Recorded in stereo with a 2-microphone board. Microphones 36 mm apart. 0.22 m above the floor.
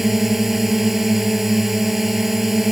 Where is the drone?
5° right (ahead or behind).